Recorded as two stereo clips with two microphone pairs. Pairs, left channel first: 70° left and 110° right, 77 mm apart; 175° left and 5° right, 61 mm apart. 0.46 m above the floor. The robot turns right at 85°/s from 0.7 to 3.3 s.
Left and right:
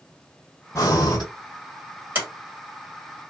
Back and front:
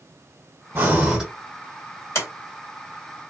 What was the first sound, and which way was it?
Breathing, 40° left.